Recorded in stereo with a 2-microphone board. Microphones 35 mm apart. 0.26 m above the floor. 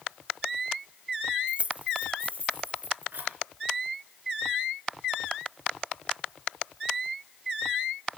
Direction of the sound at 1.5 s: 30° right (ahead or behind).